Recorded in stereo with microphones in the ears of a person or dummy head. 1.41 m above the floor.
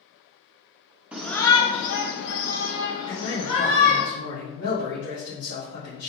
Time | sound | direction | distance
1.1 | a shout | 5° right (ahead or behind) | 0.6 m
3.1 | a man speaking | 80° left | 2.0 m